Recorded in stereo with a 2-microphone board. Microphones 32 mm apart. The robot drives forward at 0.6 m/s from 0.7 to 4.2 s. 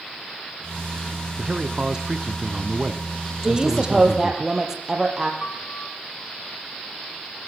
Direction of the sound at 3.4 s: 10° right (ahead or behind).